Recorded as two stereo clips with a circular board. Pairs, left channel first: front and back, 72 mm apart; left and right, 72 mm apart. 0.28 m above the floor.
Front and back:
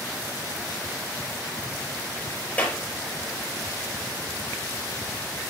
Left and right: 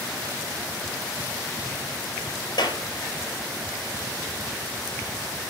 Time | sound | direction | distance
2.6 | a clap | 70° left | 4 m